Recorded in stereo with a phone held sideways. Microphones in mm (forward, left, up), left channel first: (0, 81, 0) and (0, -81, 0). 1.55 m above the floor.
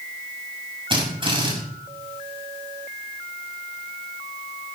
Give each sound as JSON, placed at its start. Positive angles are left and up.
{"t": 0.9, "sound": "a drill", "side_deg": -30, "distance_m": 7.0}